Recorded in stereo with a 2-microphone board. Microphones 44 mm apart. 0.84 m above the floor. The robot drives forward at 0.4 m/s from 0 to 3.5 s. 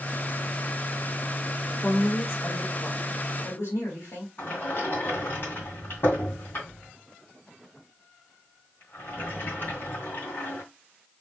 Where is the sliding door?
55° left (ahead or behind), 2 m.